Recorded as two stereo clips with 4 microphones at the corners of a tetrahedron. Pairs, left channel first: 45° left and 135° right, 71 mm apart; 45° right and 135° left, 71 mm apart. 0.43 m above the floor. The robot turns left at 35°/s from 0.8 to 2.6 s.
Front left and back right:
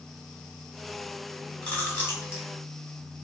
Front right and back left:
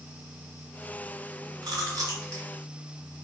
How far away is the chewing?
About 1.5 m.